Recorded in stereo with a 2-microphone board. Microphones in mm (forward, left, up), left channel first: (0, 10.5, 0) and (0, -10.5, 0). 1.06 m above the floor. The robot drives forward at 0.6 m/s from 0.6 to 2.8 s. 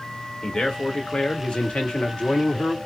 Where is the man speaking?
45° left (ahead or behind), 1.6 m; by 2.8 s 55° left (ahead or behind), 1.4 m.